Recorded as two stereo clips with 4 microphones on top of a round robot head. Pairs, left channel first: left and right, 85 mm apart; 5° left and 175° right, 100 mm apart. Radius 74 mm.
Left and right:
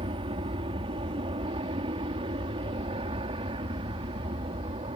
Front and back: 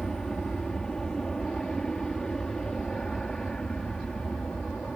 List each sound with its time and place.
0.0 s an aircraft: 80° right